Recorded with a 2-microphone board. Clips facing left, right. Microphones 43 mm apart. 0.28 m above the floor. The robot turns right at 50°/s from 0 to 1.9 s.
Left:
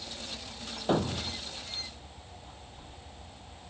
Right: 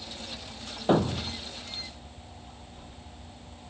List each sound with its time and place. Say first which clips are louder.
0.9 s a thud: right 4 dB; 15° right (ahead or behind); by 1.4 s 10° left (ahead or behind)